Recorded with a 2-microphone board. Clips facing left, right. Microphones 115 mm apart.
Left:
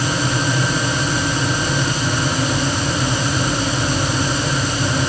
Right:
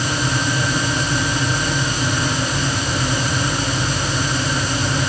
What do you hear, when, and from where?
Only background noise.